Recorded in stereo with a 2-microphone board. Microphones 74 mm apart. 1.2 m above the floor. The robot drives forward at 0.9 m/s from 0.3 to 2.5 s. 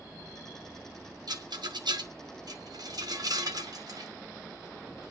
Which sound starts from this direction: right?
A rattle, at 1.3 s.